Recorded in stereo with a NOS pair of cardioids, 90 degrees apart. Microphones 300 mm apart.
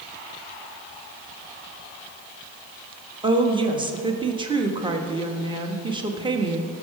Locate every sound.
3.2 s a woman speaking: 15° right, 1.3 m